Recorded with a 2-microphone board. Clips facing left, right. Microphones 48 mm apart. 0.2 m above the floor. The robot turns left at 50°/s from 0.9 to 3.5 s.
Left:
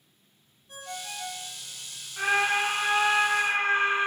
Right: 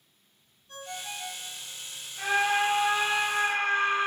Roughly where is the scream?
Left.